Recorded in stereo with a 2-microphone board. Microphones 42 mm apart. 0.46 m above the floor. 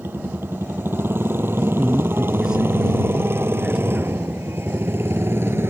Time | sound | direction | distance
0.0 | a motorcycle | 65° right (ahead or behind) | ?
1.6 | a man speaking | 20° right (ahead or behind) | ?